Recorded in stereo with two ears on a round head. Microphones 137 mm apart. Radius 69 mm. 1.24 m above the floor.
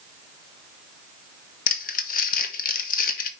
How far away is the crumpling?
About 1.2 m.